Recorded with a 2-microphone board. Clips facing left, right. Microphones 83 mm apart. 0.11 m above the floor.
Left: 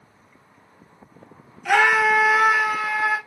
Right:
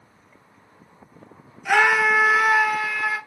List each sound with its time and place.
1.6 s a scream: 10° right (ahead or behind), 1.3 m; by 3.2 s 20° left (ahead or behind), 1.5 m